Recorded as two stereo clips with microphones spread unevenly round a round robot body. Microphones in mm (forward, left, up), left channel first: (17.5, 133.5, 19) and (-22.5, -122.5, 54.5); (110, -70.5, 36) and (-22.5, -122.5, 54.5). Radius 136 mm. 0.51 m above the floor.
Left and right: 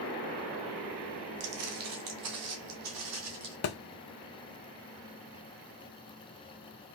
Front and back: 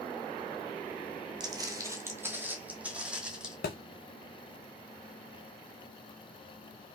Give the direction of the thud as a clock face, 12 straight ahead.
10 o'clock.